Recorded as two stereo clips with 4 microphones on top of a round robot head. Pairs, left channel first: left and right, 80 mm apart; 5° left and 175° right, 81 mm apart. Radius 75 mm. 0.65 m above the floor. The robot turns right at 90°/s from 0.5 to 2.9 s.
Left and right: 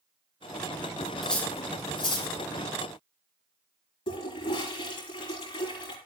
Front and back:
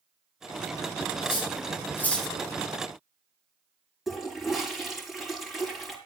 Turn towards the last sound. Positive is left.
turn(degrees=100)